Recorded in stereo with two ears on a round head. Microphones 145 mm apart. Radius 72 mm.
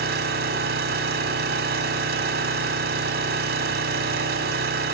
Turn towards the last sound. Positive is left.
turn(degrees=-60)  # may be behind; listen again after turning